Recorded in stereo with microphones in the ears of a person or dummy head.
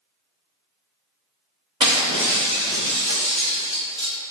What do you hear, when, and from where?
1.8 s breaking glass: 30° right (ahead or behind), 1.9 m